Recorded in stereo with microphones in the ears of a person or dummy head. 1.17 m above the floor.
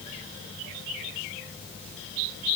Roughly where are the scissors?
I don't hear scissors.